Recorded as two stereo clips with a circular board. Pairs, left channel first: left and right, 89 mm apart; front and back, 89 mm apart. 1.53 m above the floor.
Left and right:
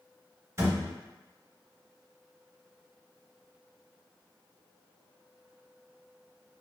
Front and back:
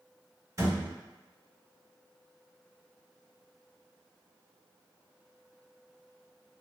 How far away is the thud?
About 1.7 m.